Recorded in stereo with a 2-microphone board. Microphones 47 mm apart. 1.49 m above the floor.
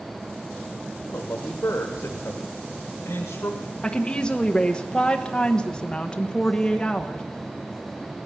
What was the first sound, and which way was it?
A man speaking, 85° left.